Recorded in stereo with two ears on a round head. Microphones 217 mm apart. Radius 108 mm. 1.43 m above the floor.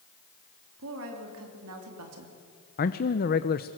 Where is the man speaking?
40° left (ahead or behind), 0.7 m.